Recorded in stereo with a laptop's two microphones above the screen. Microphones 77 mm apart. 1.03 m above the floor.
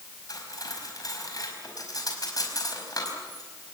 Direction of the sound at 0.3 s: 55° left (ahead or behind).